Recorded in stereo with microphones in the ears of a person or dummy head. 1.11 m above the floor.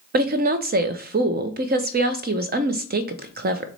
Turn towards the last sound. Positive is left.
turn(degrees=-40)  # may be behind; listen again after turning